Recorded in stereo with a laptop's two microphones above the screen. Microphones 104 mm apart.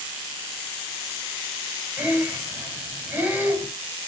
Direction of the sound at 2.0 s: 15° right (ahead or behind).